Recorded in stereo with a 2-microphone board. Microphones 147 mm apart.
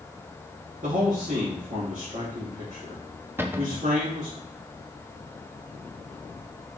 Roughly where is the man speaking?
Right.